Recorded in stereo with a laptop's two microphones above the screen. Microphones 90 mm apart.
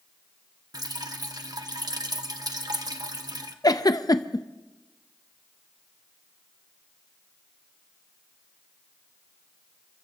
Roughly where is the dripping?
Right.